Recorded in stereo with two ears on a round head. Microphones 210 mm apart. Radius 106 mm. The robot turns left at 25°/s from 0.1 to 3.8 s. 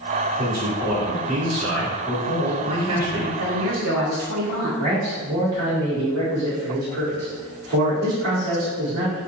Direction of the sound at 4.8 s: 50° right (ahead or behind).